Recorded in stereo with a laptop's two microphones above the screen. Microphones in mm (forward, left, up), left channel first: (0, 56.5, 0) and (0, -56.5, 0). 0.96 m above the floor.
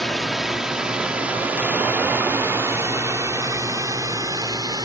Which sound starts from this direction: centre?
A drone, at 0.0 s.